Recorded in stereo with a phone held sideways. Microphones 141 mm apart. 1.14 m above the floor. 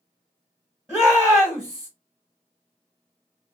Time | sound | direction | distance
0.9 | a shout | 5° left (ahead or behind) | 0.9 m